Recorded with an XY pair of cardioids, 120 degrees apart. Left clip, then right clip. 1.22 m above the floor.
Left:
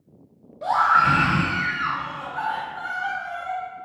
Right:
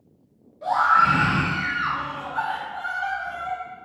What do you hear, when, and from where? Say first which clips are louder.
0.6 s a scream: even; 40° left, 1.0 m; by 3.6 s 65° right, 1.2 m